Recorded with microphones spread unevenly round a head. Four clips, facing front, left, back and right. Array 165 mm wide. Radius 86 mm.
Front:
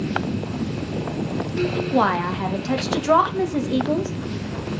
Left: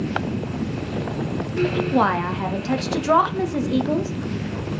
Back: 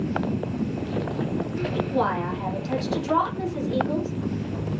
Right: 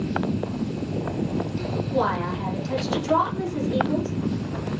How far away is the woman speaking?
About 1.7 m.